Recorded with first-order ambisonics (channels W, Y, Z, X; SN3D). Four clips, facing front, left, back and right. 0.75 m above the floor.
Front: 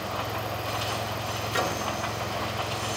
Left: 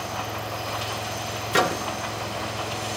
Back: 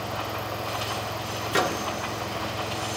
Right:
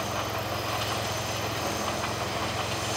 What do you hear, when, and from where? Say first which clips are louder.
1.5 s a microwave: left 8 dB, back 4 dB; 110° left, 1.3 m